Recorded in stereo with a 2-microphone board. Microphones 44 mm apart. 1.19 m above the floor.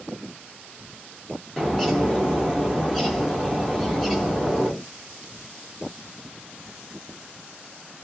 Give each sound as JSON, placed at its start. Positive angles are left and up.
{"t": 1.6, "sound": "a bird", "side_deg": 5, "distance_m": 0.8}